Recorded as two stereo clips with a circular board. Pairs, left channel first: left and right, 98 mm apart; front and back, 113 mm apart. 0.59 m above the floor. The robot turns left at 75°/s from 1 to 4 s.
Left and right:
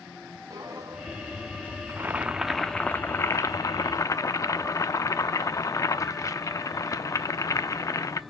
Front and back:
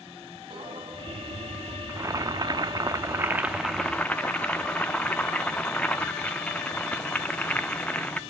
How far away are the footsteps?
About 2.0 m.